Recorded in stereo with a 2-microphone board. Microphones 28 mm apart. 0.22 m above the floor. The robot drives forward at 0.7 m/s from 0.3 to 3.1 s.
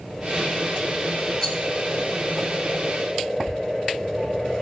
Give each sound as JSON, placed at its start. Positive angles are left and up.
{"t": 1.4, "sound": "a rattle", "side_deg": 25, "distance_m": 1.2}